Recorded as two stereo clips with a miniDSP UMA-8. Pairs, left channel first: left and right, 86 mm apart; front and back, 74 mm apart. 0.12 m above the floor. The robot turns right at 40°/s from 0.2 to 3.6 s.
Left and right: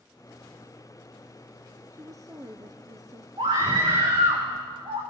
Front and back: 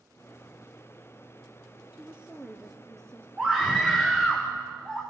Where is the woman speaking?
120° right, 1.5 m; by 3.3 s 70° right, 1.5 m.